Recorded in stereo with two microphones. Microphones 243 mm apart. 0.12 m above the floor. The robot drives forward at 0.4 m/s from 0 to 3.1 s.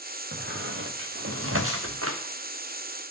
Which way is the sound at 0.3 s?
50° right (ahead or behind).